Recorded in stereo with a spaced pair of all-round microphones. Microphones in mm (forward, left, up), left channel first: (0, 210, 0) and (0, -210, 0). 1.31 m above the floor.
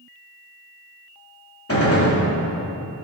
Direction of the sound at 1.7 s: 35° left (ahead or behind).